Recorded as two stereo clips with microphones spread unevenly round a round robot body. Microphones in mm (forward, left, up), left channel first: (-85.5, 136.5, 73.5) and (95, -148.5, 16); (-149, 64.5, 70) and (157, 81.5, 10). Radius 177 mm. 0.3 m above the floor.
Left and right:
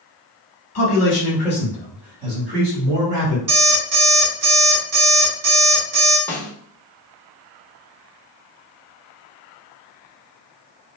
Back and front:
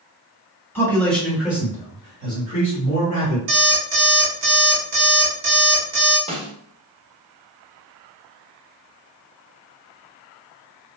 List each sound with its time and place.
0.8 s a man speaking: 90° left, 1.5 m; by 3.4 s 50° right, 1.9 m
3.5 s an alarm clock: 20° right, 1.6 m
6.3 s a snare drum: 30° left, 0.7 m